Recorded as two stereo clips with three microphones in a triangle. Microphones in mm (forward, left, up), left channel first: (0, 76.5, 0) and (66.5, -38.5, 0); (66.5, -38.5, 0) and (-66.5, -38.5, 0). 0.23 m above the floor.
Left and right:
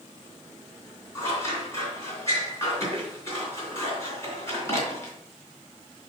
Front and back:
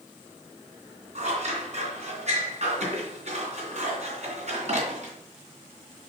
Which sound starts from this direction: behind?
Scissors, at 1.1 s.